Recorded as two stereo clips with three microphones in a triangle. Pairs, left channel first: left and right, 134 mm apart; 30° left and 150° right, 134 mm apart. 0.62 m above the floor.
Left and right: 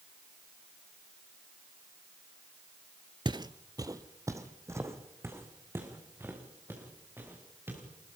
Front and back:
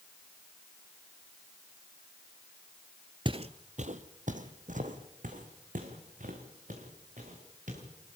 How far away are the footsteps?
About 0.7 m.